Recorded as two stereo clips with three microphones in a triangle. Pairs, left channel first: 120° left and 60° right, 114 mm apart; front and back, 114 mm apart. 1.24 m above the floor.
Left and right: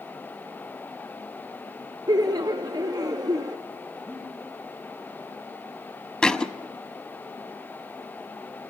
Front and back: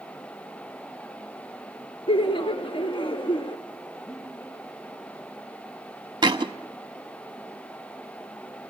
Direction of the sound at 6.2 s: 160° right.